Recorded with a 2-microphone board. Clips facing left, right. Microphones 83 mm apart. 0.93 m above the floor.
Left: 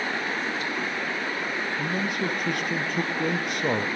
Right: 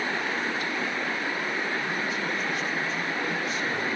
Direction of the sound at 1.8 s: 60° left (ahead or behind).